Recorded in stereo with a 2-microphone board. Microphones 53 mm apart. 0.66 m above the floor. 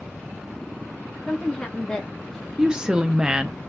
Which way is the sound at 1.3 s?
20° left (ahead or behind).